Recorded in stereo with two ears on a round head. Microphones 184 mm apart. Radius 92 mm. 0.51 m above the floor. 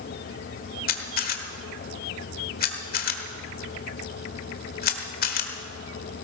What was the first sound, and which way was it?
A camera shutter, 45° left (ahead or behind).